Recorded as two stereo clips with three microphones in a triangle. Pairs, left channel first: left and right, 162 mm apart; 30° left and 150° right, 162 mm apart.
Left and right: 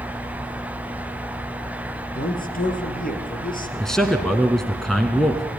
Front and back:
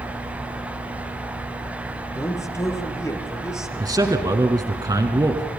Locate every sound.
2.1 s a man speaking: 100° left, 3.5 m
3.8 s a man speaking: 175° left, 1.5 m